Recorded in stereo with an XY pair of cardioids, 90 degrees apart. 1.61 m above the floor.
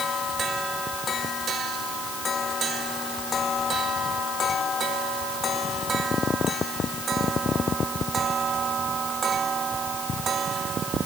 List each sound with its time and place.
Only background noise.